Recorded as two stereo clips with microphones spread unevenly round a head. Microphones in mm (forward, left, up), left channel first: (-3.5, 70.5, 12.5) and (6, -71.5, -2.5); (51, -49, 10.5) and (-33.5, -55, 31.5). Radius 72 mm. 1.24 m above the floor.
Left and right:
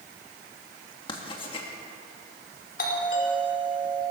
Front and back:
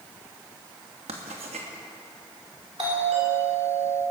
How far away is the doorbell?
About 4.5 m.